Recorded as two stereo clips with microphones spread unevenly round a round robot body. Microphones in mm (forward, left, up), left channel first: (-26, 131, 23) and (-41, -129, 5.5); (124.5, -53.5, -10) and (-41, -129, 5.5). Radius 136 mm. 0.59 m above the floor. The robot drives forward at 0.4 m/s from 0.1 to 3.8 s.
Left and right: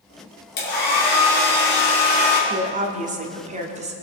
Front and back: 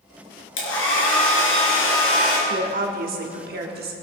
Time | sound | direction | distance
0.6 | a hair dryer | 30° left | 4 m
2.5 | a woman speaking | 130° right | 1.5 m